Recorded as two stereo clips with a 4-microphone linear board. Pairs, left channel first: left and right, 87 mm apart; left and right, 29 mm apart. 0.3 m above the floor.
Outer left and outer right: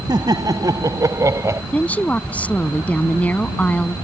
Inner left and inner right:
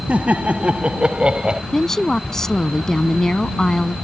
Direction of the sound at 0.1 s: 50° right (ahead or behind).